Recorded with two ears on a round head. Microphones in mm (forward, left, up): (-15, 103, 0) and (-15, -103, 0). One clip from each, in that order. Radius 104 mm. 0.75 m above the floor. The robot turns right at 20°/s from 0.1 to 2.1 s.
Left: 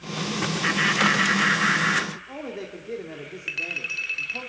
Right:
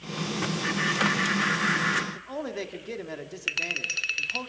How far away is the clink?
About 1.3 m.